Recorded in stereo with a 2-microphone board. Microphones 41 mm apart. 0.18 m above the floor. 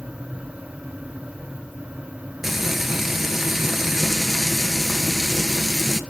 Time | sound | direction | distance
2.4 | frying | 5° right (ahead or behind) | 1.2 m